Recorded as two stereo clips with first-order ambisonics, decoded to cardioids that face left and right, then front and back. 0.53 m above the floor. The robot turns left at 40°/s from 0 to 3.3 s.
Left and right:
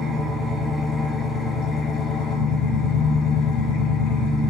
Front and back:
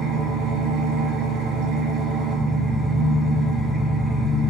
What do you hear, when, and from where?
0.0 s an engine running: 135° right, 1.4 m; by 4.5 s 90° left, 1.4 m